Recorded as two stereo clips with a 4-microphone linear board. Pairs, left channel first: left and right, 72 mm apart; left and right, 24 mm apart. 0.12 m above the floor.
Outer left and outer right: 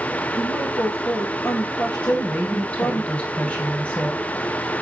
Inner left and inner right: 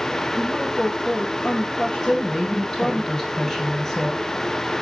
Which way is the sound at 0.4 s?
65° left (ahead or behind).